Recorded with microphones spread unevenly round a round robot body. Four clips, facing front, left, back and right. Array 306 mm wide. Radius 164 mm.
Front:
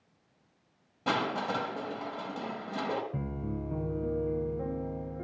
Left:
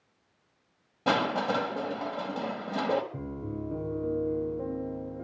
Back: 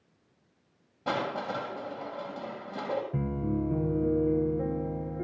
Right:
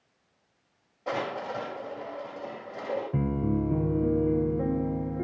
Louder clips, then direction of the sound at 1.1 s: Left 5 dB, front 1 dB; 60° left.